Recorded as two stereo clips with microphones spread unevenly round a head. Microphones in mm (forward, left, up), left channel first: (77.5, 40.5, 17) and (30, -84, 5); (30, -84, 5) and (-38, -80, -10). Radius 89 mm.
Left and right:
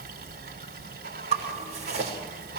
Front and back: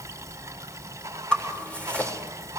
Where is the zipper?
75° right, 7 m.